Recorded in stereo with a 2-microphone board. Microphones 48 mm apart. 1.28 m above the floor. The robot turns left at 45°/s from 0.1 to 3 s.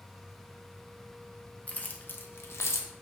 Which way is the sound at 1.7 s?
30° left (ahead or behind).